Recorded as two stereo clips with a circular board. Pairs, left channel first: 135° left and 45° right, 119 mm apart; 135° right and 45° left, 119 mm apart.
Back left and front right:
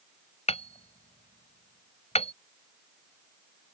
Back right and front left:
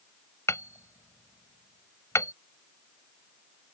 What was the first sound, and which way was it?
Hammering, 160° left.